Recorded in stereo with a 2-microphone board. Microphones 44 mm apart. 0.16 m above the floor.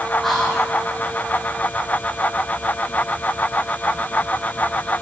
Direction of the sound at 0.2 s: Centre (ahead or behind).